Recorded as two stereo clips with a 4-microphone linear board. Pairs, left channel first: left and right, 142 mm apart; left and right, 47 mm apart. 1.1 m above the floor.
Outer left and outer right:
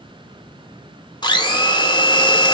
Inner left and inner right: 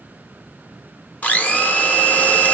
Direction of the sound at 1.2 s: 30° left (ahead or behind).